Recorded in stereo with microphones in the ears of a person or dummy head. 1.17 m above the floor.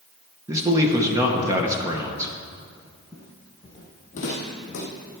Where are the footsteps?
10° right (ahead or behind), 1.5 m; by 4.9 s 50° left (ahead or behind), 3 m.